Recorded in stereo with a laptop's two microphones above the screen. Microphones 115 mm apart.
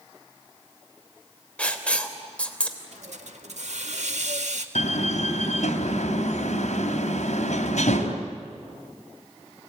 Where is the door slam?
75° left (ahead or behind), 3.5 m.